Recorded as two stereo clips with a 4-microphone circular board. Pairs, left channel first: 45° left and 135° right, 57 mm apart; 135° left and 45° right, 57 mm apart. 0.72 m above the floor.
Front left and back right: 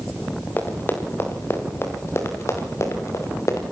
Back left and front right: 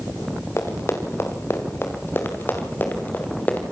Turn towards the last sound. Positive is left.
turn(degrees=75)